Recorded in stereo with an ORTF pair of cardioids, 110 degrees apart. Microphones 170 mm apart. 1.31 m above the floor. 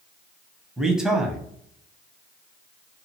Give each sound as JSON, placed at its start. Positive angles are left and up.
{"t": 0.8, "sound": "a man speaking", "azimuth_deg": -5, "distance_m": 0.8}